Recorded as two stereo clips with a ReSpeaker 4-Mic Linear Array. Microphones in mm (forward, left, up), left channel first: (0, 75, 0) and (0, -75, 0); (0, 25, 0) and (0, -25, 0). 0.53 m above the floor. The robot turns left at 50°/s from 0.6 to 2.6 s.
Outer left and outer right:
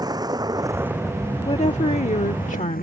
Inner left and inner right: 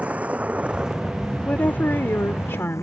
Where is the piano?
I don't hear a piano.